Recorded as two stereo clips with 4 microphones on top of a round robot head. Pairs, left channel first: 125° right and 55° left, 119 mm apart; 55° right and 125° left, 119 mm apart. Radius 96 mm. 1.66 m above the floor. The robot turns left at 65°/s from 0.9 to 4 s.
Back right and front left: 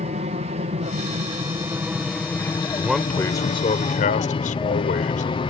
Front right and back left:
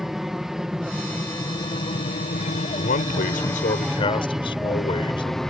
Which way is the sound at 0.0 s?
40° left.